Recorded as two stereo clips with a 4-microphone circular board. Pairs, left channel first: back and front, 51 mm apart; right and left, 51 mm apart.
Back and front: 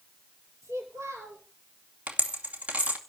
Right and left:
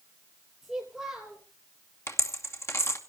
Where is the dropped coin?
60° right, 2.5 m.